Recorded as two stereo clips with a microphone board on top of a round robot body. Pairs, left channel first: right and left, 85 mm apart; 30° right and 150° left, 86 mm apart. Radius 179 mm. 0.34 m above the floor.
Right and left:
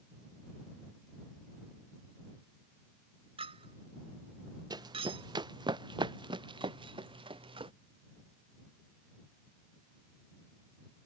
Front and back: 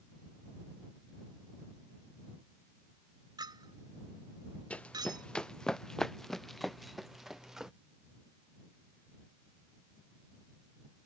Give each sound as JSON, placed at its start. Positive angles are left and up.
{"t": 3.4, "sound": "a clink", "azimuth_deg": 105}
{"t": 4.7, "sound": "running footsteps", "azimuth_deg": 45}